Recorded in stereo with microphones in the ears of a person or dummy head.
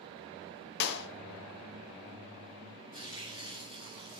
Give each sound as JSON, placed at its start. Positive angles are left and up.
{"t": 0.8, "sound": "a clap", "side_deg": 60, "distance_m": 1.2}
{"t": 2.9, "sound": "tearing paper", "side_deg": 45, "distance_m": 2.5}